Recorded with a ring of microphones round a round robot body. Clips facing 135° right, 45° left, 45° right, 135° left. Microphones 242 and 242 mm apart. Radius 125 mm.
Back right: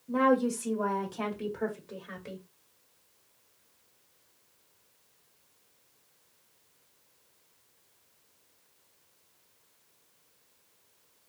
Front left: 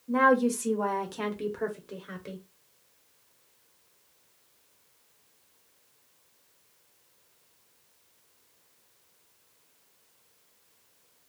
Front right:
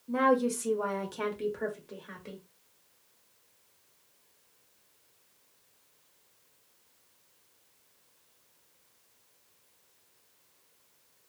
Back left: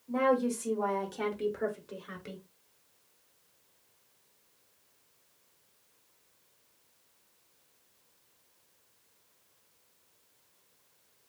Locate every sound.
0.1 s a woman speaking: 5° left, 1.3 m; by 2.4 s 120° left, 1.0 m